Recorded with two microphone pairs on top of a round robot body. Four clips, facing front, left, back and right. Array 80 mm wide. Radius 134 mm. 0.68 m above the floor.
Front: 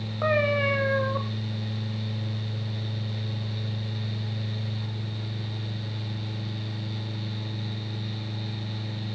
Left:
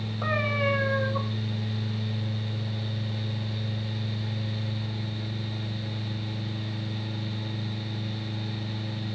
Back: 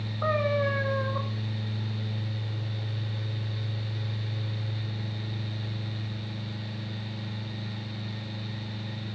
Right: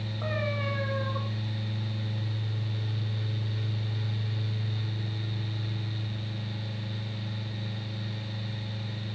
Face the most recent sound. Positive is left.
turn(degrees=0)